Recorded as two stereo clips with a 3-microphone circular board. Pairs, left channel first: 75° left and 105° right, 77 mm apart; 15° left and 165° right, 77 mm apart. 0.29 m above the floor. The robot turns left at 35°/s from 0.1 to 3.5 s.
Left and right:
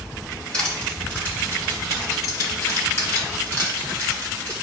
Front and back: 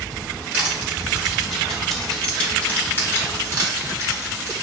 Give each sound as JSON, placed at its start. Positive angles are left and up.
{"t": 0.5, "sound": "crushing", "azimuth_deg": 140, "distance_m": 1.7}